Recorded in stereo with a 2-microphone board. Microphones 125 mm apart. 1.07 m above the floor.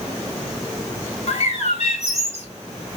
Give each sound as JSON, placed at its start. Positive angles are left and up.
{"t": 1.3, "sound": "a bird", "side_deg": 60, "distance_m": 1.0}